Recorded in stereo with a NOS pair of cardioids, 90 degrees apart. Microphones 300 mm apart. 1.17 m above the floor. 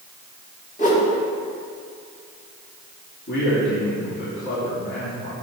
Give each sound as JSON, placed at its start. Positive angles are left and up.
{"t": 0.8, "sound": "a whoosh", "azimuth_deg": 25, "distance_m": 2.5}
{"t": 3.3, "sound": "a man speaking", "azimuth_deg": 40, "distance_m": 3.0}